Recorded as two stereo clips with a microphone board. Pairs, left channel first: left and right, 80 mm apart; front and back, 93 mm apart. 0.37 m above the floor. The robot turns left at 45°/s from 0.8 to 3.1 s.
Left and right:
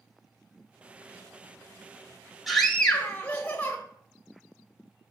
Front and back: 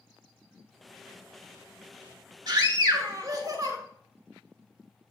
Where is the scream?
Straight behind, 1.7 m; by 3.8 s 150° left, 1.7 m.